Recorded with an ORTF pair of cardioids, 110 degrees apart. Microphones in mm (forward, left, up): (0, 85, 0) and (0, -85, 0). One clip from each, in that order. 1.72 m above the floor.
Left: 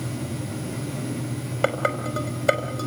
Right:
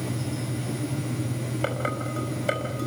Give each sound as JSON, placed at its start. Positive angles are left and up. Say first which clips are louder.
{"t": 1.6, "sound": "dishes clattering", "louder": "left 6 dB", "azimuth_deg": 40, "distance_m": 5.0}